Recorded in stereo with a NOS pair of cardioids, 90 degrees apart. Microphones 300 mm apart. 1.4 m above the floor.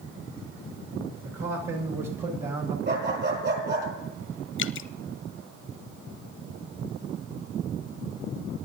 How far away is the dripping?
About 0.6 m.